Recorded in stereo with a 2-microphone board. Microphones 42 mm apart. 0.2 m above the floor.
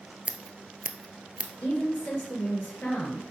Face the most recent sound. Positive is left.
turn(degrees=35)  # may be behind; listen again after turning